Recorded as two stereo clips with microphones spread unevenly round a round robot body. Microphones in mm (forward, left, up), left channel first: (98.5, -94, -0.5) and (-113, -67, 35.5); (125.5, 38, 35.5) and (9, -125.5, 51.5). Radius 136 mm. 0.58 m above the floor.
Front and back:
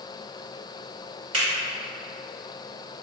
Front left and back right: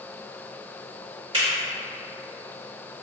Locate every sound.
1.3 s a finger snap: 170° left, 1.6 m